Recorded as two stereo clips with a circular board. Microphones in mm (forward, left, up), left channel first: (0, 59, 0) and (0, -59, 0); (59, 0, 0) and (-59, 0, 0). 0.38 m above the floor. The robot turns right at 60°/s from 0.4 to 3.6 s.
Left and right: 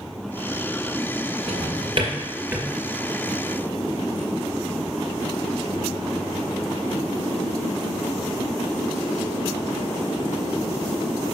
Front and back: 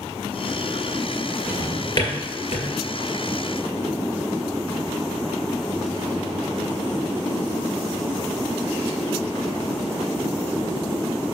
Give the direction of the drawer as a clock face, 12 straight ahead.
3 o'clock.